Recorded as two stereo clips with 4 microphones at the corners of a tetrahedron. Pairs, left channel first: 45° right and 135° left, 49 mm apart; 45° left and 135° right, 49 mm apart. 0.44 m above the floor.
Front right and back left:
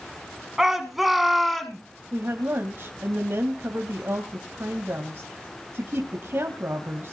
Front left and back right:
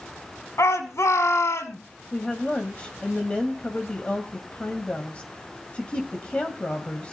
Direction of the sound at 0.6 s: 55° left.